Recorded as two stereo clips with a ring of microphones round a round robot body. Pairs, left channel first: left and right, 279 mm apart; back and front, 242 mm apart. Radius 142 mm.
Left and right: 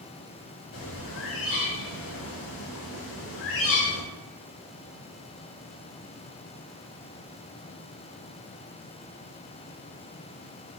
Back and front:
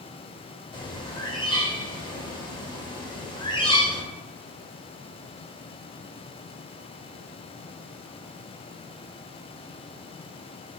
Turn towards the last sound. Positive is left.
turn(degrees=115)